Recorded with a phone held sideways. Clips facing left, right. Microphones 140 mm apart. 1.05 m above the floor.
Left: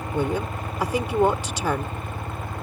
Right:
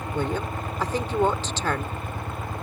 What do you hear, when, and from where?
0.1 s a woman speaking: 10° left (ahead or behind)